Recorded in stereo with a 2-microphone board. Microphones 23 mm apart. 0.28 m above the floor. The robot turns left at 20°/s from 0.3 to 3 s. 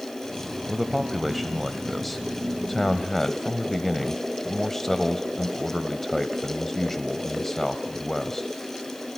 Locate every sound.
0.7 s a man speaking: 155° right, 1.1 m; by 8.5 s 155° left, 1.1 m